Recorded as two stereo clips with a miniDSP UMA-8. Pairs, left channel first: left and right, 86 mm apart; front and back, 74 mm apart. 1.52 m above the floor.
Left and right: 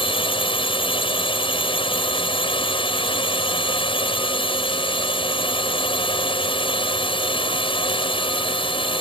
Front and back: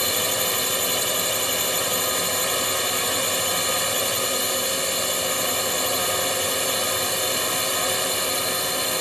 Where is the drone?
90° left.